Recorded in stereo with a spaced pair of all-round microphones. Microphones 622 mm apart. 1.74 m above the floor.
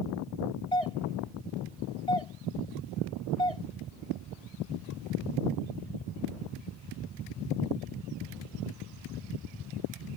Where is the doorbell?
55° left (ahead or behind).